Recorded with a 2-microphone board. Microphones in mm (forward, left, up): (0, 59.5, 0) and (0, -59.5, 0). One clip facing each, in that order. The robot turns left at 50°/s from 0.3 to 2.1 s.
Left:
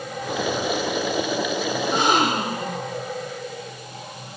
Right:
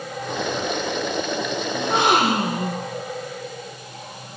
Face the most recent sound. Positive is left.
turn(degrees=-65)  # may be behind; listen again after turning